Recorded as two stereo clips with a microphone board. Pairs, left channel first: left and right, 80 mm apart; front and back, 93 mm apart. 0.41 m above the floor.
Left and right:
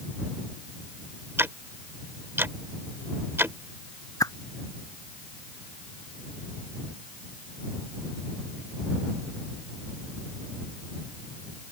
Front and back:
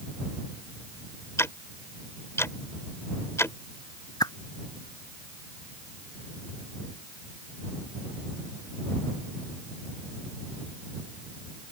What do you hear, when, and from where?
1.4 s ticking: 45° right
4.2 s a whoosh: 45° left